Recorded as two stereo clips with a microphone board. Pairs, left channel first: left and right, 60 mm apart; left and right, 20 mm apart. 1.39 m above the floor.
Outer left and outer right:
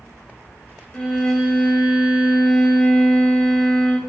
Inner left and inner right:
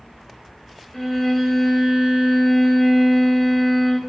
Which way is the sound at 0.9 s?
25° left (ahead or behind).